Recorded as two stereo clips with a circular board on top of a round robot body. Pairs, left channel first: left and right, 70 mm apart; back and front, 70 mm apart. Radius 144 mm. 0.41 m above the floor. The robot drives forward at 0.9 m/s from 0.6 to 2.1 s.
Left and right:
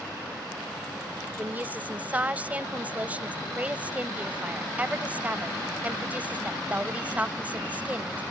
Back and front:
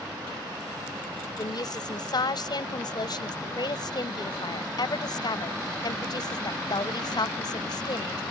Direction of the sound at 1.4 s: 155° right.